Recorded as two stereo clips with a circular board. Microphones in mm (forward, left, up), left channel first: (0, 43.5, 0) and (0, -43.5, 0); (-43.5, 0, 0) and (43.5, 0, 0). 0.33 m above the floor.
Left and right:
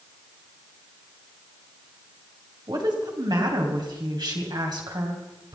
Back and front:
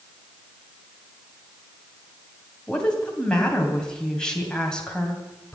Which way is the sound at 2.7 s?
100° right.